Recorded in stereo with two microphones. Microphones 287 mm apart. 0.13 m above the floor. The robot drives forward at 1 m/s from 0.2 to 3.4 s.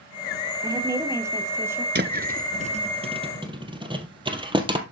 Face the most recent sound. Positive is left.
turn(degrees=-15)  # may be behind; listen again after turning